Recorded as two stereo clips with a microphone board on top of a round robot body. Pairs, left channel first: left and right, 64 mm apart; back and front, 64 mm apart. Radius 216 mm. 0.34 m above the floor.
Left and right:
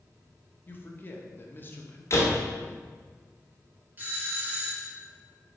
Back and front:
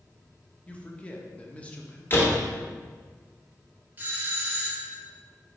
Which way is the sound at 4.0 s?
50° right.